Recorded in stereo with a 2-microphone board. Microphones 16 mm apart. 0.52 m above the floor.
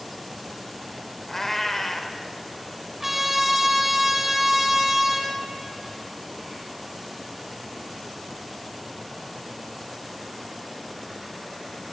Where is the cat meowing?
25° left (ahead or behind), 0.7 m.